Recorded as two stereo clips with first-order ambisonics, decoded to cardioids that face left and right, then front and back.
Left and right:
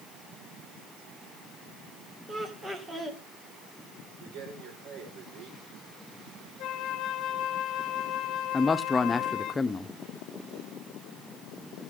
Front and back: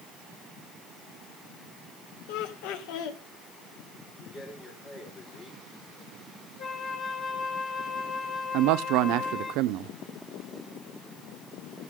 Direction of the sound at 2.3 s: 15° right.